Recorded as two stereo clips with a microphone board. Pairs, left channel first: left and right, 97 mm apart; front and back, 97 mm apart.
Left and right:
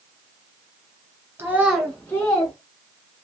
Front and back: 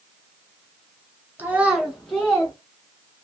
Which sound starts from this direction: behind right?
A child speaking, at 1.4 s.